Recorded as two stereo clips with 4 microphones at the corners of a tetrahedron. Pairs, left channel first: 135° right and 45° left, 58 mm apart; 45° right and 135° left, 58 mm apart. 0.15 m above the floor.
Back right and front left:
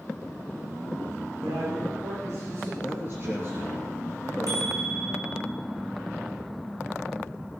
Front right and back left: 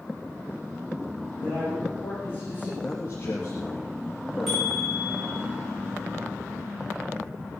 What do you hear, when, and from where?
1.4 s a man speaking: 5° left, 9.5 m
2.8 s a man speaking: 5° right, 2.5 m
4.5 s a bicycle bell: 50° left, 9 m